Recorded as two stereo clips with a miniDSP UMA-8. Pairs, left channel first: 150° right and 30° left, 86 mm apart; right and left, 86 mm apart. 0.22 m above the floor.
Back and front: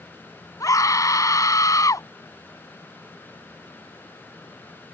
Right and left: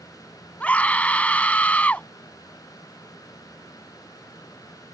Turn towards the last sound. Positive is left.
turn(degrees=-155)